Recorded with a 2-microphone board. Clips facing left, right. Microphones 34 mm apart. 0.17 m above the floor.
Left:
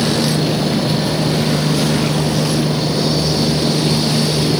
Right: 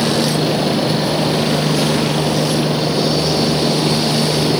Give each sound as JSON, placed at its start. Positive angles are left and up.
{"t": 0.0, "sound": "a helicopter", "side_deg": -15}